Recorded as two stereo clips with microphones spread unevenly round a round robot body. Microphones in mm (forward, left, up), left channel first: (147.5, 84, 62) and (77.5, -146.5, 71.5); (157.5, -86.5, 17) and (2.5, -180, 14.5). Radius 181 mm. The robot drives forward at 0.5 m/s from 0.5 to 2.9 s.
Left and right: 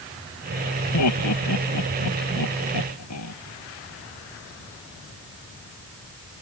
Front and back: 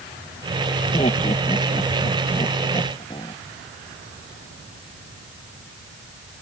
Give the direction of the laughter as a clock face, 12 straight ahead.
8 o'clock.